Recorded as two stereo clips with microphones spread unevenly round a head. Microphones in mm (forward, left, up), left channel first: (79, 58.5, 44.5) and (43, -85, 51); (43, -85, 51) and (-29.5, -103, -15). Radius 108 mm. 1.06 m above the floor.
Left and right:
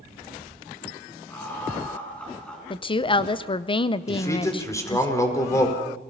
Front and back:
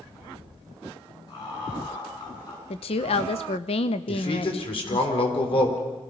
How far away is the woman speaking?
About 0.7 m.